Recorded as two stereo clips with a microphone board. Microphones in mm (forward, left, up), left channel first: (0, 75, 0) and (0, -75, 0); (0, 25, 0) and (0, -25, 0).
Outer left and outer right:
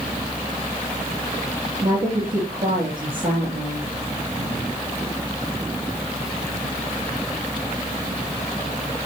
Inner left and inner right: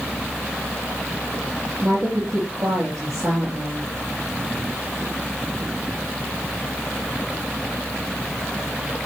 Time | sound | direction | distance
1.8 | a woman speaking | 80° right | 10 m